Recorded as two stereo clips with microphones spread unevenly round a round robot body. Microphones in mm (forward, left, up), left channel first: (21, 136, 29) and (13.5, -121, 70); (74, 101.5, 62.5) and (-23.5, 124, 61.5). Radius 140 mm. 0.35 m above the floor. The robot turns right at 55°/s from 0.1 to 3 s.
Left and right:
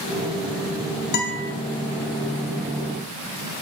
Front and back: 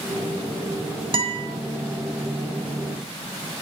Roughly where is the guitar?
Behind left.